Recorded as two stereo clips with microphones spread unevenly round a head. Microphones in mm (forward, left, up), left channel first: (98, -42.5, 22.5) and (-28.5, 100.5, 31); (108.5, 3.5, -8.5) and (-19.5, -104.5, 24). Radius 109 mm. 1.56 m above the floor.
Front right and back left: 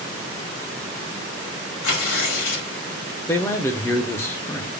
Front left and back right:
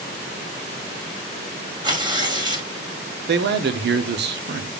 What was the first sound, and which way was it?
Tearing paper, 80° right.